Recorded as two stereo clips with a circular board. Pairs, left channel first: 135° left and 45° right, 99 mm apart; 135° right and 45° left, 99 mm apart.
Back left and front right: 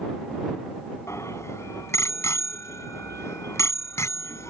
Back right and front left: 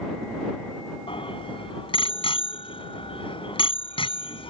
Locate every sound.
1.1 s a bicycle bell: 165° right